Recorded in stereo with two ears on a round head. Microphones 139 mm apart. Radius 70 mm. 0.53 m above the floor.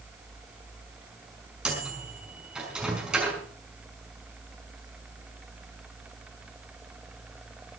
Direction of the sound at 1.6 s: 5° right (ahead or behind).